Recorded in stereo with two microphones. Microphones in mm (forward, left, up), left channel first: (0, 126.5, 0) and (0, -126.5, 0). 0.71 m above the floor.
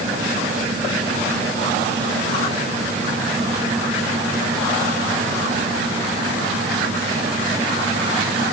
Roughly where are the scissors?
I don't hear scissors.